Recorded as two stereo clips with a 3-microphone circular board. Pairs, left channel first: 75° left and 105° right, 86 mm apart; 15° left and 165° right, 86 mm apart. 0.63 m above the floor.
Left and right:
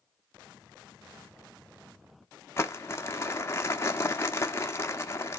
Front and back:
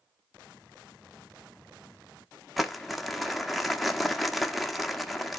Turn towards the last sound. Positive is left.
turn(degrees=105)